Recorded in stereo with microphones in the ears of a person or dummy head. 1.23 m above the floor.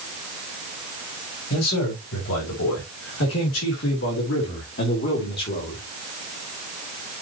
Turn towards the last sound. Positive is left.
turn(degrees=45)  # may be behind; listen again after turning